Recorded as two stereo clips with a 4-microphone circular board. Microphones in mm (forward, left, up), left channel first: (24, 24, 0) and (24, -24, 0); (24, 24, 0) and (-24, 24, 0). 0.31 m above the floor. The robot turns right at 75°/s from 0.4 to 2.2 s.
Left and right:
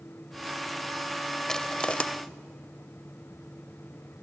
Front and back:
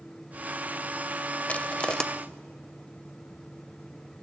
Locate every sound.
1.5 s crushing: 20° left, 0.9 m; by 2.0 s 60° left, 0.9 m